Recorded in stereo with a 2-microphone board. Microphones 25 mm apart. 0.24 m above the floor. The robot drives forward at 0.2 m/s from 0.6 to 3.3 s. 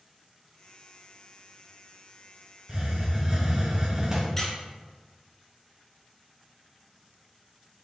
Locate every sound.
2.7 s a hiss: 25° right (ahead or behind), 0.9 m
4.4 s a squeak: 20° left (ahead or behind), 1.1 m